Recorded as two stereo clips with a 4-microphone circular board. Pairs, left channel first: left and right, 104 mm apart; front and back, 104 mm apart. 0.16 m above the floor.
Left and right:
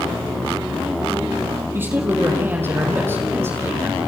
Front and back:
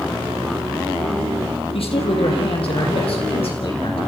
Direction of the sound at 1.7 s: 20° right.